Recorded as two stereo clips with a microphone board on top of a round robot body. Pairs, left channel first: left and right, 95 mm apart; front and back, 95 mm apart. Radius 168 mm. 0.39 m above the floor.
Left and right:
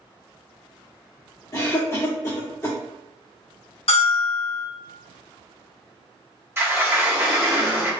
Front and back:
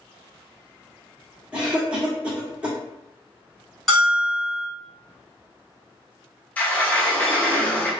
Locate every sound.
1.5 s a cough: 115° left, 1.5 m
3.9 s a bell: 90° left, 1.4 m
6.6 s a sliding door: 55° right, 1.2 m